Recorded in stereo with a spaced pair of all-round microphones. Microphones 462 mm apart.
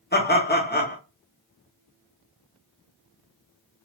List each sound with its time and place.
0.1 s laughter: 20° left (ahead or behind), 1.2 m